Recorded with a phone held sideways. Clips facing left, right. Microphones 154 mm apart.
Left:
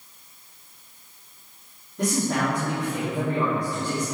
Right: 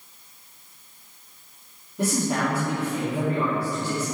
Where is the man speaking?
10° right (ahead or behind), 3.5 m.